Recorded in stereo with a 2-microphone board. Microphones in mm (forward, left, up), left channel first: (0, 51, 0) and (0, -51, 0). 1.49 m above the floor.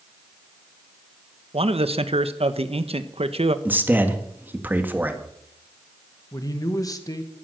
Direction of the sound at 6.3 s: 35° left (ahead or behind).